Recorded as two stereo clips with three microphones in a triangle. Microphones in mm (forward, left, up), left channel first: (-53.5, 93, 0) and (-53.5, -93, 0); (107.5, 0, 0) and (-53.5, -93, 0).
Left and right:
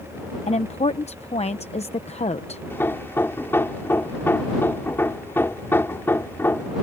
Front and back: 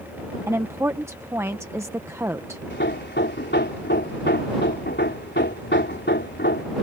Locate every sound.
0.5 s a woman speaking: 140° left
2.7 s hammering: 10° left